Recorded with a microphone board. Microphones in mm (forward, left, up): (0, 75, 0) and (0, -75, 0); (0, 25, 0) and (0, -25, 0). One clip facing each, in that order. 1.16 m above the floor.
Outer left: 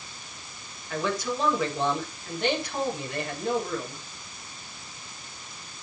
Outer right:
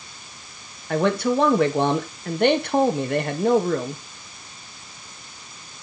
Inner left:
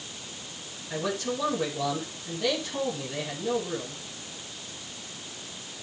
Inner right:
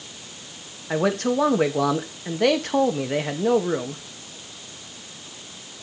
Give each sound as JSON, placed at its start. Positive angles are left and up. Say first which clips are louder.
{"t": 0.9, "sound": "a man speaking", "louder": "outer right 9 dB, inner right 9 dB", "side_deg": -60, "distance_m": 1.8}